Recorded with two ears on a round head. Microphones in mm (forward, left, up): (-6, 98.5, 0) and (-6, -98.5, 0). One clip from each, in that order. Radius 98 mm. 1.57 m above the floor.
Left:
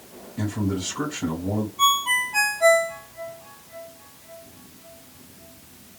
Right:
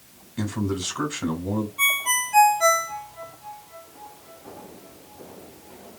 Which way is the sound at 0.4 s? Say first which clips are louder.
Even; 80° right.